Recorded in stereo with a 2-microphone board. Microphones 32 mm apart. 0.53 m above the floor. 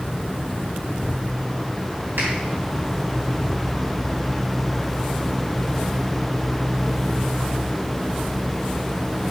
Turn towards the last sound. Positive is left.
turn(degrees=-75)  # may be behind; listen again after turning